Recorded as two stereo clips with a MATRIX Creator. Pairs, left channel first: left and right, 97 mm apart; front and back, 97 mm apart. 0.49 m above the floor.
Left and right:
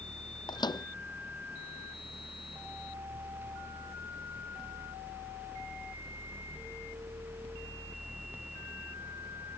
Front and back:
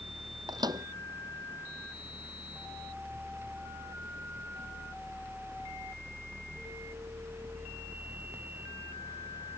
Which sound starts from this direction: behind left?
A microwave, at 0.5 s.